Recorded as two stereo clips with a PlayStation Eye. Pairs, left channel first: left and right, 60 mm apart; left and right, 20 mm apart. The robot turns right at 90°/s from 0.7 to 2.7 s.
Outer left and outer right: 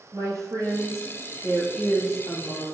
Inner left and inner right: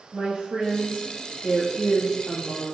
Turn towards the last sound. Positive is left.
turn(degrees=65)